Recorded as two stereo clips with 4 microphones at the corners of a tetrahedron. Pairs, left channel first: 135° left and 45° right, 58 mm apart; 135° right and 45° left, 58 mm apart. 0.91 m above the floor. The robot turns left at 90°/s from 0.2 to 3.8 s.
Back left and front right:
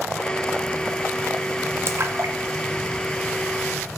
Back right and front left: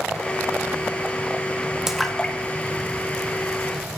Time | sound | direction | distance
1.9 | a splash | 35° right | 1.2 m